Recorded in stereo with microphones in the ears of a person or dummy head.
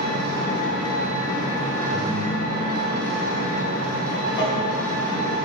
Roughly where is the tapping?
Left.